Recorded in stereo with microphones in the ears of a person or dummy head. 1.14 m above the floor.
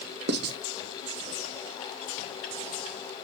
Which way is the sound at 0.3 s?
55° right (ahead or behind).